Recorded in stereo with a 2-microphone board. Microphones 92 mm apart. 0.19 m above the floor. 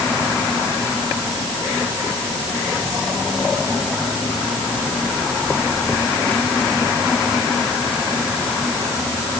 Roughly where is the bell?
I don't hear a bell.